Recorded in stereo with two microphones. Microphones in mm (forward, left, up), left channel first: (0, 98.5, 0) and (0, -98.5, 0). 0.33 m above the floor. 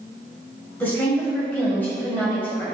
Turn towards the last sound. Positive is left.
turn(degrees=10)  # may be behind; listen again after turning